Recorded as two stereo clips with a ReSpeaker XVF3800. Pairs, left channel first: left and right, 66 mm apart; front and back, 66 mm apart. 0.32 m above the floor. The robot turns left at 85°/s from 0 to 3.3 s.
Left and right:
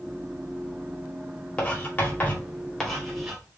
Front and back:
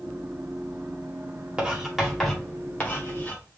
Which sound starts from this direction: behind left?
Writing, at 1.6 s.